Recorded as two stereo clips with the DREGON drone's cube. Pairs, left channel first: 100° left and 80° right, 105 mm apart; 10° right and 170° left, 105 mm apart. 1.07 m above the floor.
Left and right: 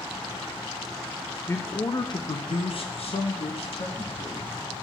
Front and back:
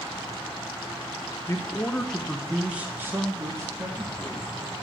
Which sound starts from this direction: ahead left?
A man speaking, at 1.5 s.